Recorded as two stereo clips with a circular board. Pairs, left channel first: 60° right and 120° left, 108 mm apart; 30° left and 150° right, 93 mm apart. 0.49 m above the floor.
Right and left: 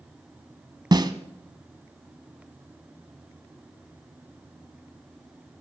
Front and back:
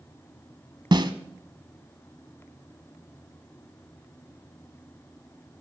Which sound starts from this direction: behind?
A snare drum, at 0.9 s.